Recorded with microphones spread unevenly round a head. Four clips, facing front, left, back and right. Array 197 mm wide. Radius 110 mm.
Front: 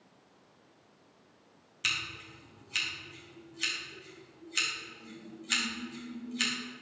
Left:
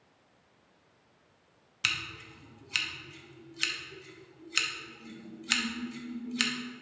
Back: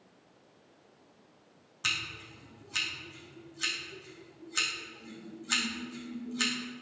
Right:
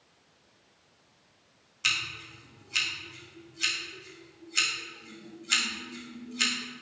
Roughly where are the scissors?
Behind left.